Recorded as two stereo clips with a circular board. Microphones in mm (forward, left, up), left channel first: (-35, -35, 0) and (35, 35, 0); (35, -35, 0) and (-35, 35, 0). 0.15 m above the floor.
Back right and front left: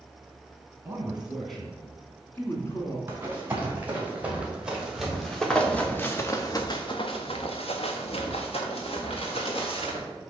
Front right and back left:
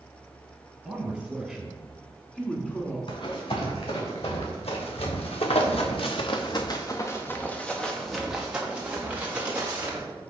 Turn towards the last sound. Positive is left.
turn(degrees=-160)